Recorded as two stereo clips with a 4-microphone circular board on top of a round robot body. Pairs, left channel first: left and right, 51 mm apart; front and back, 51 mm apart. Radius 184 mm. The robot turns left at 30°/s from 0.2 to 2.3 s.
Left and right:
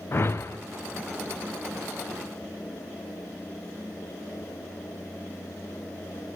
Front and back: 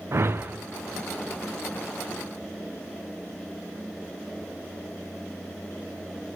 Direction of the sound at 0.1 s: 135° left.